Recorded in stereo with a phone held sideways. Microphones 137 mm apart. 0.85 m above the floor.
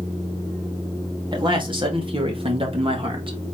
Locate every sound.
1.3 s a man speaking: 35° right (ahead or behind), 1.7 m; by 3.4 s 40° right (ahead or behind), 1.2 m